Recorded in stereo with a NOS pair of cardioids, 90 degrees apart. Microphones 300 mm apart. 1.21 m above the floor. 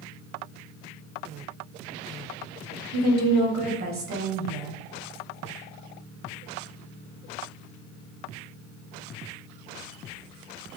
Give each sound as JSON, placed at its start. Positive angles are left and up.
{"t": 2.9, "sound": "a woman speaking", "azimuth_deg": -60, "distance_m": 0.9}